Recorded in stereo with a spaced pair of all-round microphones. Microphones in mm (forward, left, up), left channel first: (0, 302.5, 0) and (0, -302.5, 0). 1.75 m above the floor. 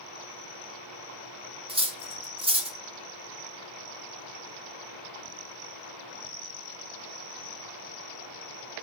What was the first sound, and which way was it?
Cutlery clinking, 10° right (ahead or behind).